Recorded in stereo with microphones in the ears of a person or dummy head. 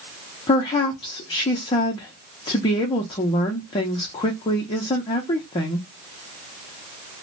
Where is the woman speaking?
30° left (ahead or behind), 0.5 m.